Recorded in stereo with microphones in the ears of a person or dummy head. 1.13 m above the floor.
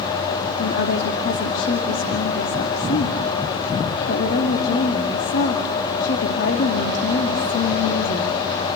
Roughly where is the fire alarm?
No fire alarm in this recording.